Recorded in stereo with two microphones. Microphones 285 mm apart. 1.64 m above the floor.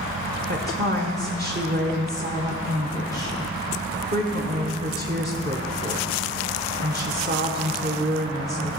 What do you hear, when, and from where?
0.5 s a woman speaking: 35° right (ahead or behind), 1.0 m